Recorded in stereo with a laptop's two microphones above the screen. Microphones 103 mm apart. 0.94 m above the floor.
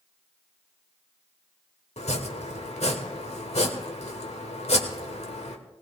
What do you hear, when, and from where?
2.0 s chopping: 75° left (ahead or behind), 1.4 m